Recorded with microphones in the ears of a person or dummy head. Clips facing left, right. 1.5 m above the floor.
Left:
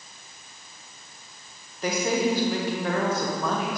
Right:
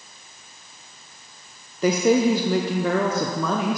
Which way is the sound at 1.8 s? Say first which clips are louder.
Right 7 dB; 70° right (ahead or behind).